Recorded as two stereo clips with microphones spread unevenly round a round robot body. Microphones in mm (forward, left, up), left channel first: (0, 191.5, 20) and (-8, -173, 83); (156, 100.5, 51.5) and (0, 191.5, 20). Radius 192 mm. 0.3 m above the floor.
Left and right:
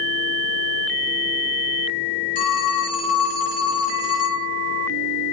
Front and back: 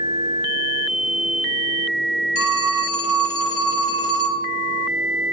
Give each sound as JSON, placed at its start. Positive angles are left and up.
{"t": 2.4, "sound": "a phone ringing", "azimuth_deg": 25, "distance_m": 1.7}